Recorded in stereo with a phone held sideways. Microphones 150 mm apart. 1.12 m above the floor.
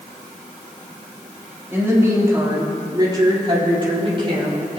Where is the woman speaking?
15° right (ahead or behind), 2.5 m; by 4.8 s 40° right (ahead or behind), 4.5 m.